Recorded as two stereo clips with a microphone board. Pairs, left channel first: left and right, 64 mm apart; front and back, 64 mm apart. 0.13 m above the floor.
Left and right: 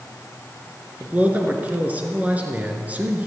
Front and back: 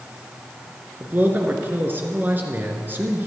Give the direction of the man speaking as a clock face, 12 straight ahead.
5 o'clock.